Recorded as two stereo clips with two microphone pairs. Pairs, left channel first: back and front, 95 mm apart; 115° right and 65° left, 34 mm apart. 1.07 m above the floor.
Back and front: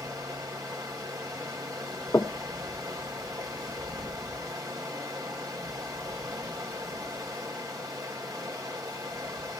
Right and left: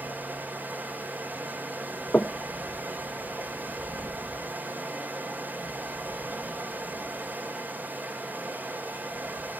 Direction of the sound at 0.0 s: 50° left.